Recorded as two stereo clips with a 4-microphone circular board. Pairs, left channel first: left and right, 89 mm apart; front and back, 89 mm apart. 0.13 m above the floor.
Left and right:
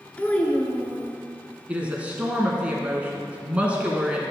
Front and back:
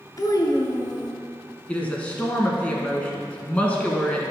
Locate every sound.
0.2 s a child speaking: 20° left, 1.0 m
1.7 s a woman speaking: 45° right, 1.1 m